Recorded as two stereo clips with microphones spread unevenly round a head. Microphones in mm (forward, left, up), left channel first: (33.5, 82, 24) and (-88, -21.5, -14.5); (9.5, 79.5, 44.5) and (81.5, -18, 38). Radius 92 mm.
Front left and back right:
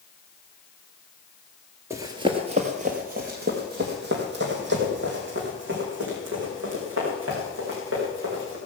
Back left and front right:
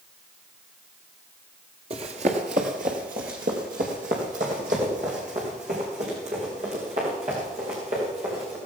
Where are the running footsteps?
55° right, 1.3 m; by 8.6 s 110° right, 7 m.